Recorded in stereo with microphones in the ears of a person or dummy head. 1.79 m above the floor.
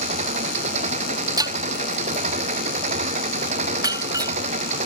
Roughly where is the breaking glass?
Centre.